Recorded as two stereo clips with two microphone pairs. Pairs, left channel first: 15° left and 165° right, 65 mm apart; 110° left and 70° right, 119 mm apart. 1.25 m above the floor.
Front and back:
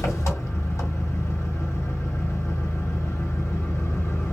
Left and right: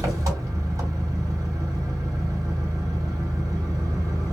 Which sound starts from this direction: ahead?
An engine running, at 0.0 s.